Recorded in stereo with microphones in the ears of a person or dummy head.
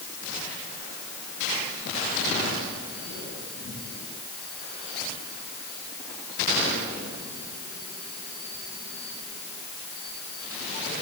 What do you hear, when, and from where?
Only background noise.